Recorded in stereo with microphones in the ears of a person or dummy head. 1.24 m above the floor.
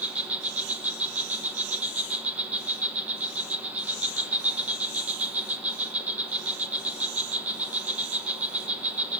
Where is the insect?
10° right (ahead or behind), 1.2 m.